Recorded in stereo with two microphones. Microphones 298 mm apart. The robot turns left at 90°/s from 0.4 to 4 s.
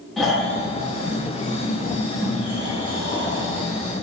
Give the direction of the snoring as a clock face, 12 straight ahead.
6 o'clock.